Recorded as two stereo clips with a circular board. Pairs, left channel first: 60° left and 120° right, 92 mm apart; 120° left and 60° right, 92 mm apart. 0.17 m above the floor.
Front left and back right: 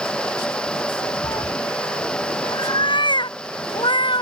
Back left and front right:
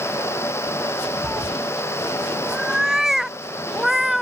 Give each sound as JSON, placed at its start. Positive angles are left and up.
{"t": 1.2, "sound": "a cat meowing", "azimuth_deg": 20}